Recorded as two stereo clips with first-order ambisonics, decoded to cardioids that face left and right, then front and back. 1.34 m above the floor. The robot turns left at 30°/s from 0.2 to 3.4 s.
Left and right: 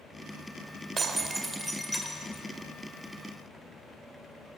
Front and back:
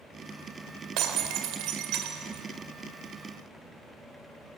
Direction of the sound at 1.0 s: 160° right.